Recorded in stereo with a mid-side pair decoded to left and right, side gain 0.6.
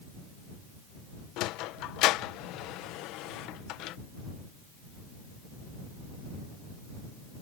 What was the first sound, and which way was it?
A sliding door, 70° left.